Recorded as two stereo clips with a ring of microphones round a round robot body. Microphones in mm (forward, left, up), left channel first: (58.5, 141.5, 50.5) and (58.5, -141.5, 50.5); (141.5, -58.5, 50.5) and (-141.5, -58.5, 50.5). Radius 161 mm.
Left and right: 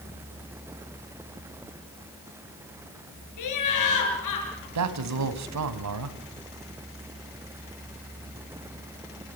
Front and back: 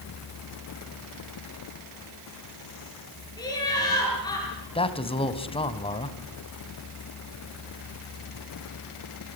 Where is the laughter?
80° left, 8 m.